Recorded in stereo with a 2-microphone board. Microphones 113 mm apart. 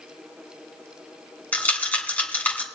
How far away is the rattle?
About 1.8 m.